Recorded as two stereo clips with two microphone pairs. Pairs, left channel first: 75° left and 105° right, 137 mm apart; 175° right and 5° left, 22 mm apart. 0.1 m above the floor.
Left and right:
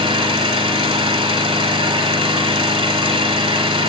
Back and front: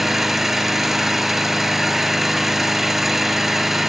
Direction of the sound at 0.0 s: 65° right.